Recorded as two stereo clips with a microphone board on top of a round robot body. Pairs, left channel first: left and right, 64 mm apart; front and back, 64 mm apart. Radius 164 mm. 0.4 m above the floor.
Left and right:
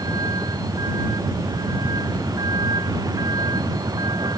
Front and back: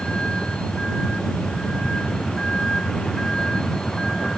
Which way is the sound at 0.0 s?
75° right.